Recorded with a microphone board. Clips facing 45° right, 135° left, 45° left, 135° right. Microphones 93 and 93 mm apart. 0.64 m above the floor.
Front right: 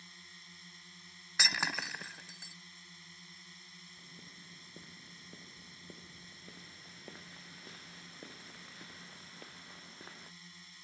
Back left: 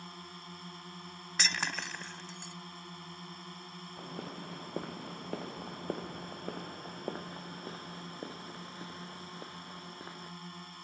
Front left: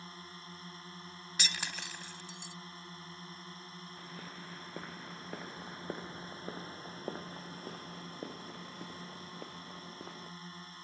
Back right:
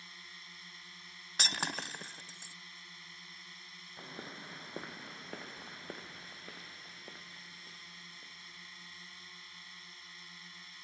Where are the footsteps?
155° left; by 10.3 s 60° left.